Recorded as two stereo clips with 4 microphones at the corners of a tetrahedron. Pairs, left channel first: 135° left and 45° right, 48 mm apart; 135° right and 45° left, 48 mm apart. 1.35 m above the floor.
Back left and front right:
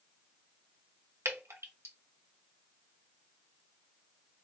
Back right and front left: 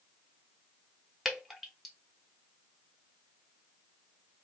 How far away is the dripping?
About 1.0 m.